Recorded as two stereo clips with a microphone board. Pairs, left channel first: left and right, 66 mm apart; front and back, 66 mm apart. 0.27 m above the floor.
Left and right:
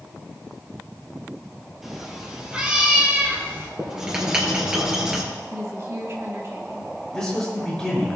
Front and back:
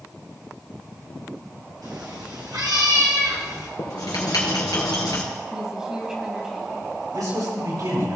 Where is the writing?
10° right, 3 m.